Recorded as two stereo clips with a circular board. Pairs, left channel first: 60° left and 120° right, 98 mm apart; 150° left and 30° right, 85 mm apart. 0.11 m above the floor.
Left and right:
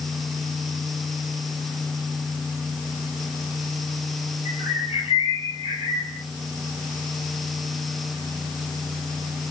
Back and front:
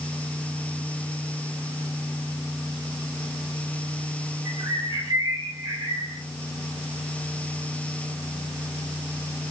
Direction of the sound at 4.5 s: 60° right.